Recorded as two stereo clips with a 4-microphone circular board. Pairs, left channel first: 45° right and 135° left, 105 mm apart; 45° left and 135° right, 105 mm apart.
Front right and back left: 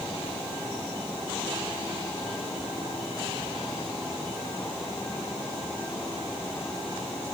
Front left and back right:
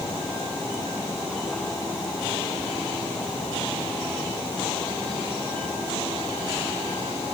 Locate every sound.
Only background noise.